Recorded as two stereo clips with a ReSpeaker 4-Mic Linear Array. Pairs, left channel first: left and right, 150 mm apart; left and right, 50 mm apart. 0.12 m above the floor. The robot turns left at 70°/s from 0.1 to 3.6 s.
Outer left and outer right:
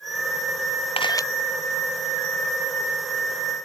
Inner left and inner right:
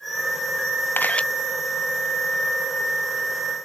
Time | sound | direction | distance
1.0 | a camera shutter | 40° left (ahead or behind) | ?